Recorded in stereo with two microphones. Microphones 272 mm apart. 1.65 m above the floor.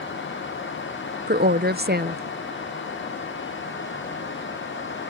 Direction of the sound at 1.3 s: 35° right (ahead or behind).